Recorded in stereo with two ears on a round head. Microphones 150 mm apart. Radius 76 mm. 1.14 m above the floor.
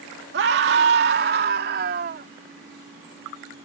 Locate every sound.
0.3 s a scream: 70° right (ahead or behind); by 2.3 s 55° right (ahead or behind)